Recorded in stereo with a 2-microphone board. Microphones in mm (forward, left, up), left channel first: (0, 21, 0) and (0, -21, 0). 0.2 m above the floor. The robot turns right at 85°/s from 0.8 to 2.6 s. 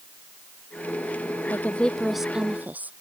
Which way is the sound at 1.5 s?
130° left.